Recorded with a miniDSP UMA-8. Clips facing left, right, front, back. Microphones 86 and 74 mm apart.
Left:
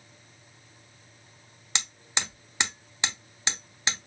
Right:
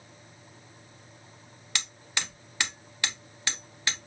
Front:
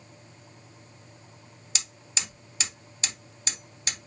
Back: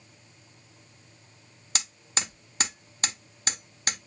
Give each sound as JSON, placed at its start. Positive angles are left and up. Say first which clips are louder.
{"t": 1.8, "sound": "hammering", "louder": "left 2 dB, back 4 dB", "azimuth_deg": 155, "distance_m": 0.9}